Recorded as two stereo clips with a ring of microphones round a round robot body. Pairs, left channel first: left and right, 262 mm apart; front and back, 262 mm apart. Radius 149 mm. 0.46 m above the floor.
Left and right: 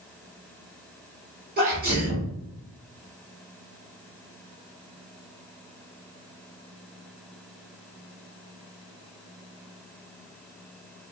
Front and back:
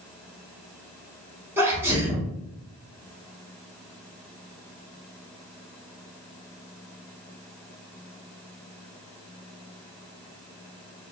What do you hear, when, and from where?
1.6 s a sneeze: 105° right, 1.5 m